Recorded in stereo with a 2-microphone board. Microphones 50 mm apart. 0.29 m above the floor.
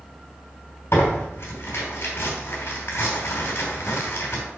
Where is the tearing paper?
60° left (ahead or behind), 3 m.